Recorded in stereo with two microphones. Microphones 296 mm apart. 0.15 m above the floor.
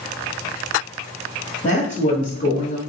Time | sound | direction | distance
1.6 | a woman speaking | 30° left (ahead or behind) | 1.3 m